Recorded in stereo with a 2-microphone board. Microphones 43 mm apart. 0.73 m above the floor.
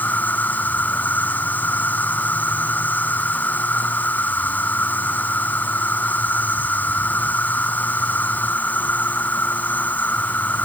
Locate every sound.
0.0 s an insect: 45° left (ahead or behind)